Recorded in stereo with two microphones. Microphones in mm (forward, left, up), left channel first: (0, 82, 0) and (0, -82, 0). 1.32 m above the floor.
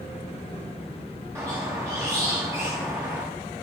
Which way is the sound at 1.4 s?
15° right (ahead or behind).